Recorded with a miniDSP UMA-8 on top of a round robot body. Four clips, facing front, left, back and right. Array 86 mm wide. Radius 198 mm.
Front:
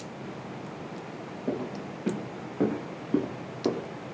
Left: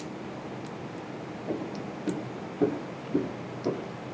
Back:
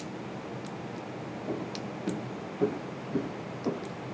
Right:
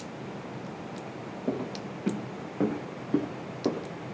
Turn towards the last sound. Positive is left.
turn(degrees=-40)